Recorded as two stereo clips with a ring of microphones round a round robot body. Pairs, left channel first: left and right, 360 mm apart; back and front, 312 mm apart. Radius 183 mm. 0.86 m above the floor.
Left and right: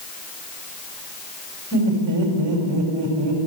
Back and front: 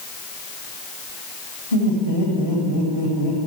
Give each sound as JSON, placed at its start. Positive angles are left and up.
{"t": 1.7, "sound": "laughter", "azimuth_deg": -135, "distance_m": 4.5}